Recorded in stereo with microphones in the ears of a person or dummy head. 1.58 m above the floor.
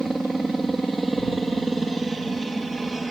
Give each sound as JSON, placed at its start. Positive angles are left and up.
{"t": 0.0, "sound": "a helicopter", "side_deg": -5}